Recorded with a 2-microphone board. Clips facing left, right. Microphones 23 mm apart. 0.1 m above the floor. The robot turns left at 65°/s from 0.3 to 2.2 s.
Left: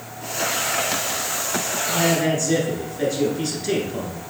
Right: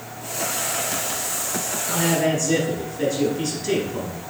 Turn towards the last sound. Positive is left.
turn(degrees=10)  # may be behind; listen again after turning